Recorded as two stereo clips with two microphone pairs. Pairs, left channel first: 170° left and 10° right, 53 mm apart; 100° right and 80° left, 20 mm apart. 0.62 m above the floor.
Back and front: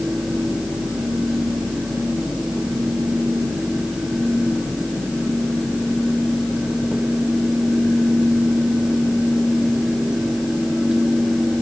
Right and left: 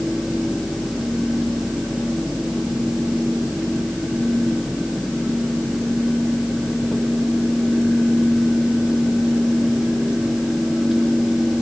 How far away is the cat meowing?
I don't hear a cat meowing.